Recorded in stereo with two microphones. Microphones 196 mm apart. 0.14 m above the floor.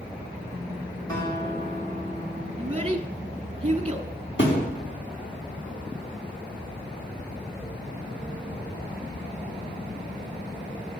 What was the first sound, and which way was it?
A guitar, 20° left (ahead or behind).